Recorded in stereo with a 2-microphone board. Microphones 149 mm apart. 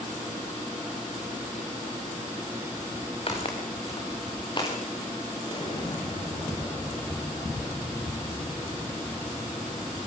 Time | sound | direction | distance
3.3 | footsteps | 45° left (ahead or behind) | 5.5 m
5.5 | an explosion | 40° left (ahead or behind) | 4.5 m